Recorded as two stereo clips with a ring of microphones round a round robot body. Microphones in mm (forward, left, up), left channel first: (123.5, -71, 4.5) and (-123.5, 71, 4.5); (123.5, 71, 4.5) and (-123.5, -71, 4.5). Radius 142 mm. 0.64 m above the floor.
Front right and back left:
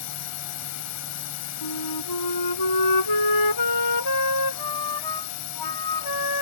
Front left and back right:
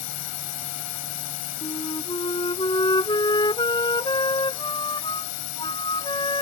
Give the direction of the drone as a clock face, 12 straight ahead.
12 o'clock.